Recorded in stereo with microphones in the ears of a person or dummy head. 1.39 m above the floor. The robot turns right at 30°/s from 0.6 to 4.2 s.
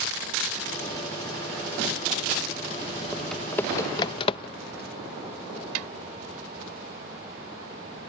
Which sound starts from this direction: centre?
Typing on a keyboard, at 3.1 s.